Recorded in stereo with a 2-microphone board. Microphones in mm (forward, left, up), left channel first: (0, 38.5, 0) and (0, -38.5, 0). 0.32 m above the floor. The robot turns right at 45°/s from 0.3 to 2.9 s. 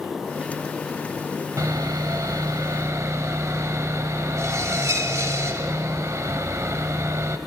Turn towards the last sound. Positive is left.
turn(degrees=-55)